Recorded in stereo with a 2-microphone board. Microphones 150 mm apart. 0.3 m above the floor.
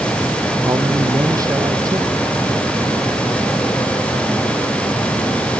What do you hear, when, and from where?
0.7 s a man speaking: 20° right (ahead or behind); by 2.7 s 25° right (ahead or behind)